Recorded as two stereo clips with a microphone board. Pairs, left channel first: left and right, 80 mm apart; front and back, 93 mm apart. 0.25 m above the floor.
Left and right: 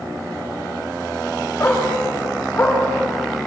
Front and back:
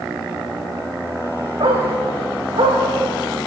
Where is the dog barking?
155° left, 7.5 m; by 2.8 s 160° left, 8 m.